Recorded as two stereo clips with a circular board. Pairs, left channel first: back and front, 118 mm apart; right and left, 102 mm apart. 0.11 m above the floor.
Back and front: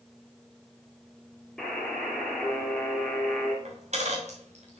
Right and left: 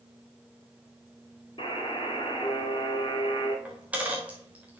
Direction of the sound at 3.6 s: 15° left.